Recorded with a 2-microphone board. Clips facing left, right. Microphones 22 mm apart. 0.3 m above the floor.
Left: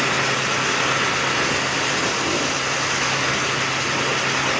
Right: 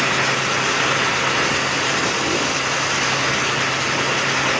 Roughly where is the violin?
I don't hear a violin.